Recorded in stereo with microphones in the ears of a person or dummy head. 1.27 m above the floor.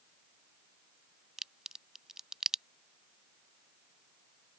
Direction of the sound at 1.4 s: Centre (ahead or behind).